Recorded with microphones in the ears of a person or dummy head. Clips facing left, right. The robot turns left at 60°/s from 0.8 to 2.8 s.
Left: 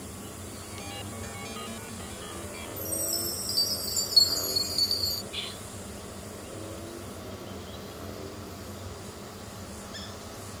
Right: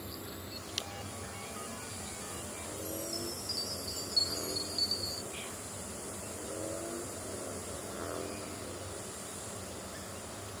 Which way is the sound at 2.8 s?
40° left (ahead or behind).